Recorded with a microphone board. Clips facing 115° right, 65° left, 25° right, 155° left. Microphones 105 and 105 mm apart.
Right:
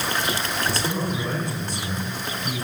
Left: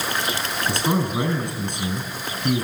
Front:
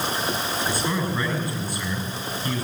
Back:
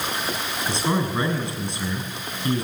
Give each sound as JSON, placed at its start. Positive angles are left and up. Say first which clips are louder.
{"t": 0.7, "sound": "a man speaking", "louder": "left 7 dB, back 5 dB", "azimuth_deg": 95, "distance_m": 6.0}